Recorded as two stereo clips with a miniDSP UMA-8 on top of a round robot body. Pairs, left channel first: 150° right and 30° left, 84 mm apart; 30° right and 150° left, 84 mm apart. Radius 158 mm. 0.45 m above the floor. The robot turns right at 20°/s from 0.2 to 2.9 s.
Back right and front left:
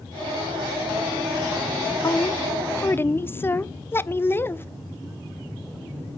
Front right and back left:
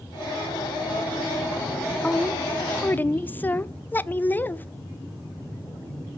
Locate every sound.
2.0 s a woman speaking: 110° right, 1.0 m; by 4.7 s 95° right, 1.0 m